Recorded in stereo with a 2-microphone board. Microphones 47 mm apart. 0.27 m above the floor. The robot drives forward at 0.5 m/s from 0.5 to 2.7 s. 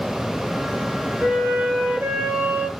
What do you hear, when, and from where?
1.2 s a flute: 35° right (ahead or behind), 1.7 m